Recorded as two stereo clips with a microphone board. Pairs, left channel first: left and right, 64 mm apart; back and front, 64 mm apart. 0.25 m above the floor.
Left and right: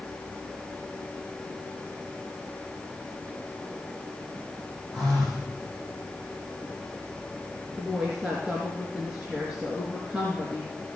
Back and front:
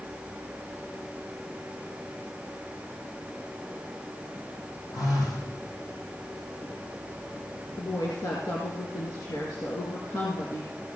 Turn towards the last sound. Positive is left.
turn(degrees=-170)